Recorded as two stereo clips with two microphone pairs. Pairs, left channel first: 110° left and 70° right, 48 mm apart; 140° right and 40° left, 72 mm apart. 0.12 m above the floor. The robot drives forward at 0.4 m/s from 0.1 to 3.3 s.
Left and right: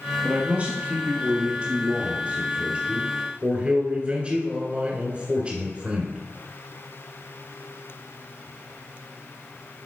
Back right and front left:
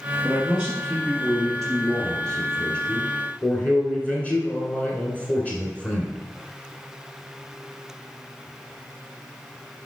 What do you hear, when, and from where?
0.2 s a man speaking: 30° right, 1.9 m; by 6.2 s 100° right, 1.6 m